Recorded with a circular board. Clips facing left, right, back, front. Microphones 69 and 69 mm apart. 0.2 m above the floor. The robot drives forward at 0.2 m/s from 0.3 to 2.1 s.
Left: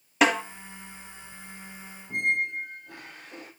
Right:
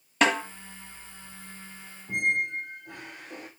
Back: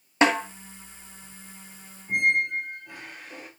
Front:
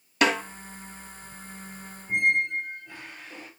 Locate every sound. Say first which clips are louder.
0.2 s a snare drum: left 1 dB, back 2 dB; 170° left, 1.4 m
2.1 s a squeak: even, even; 105° right, 6 m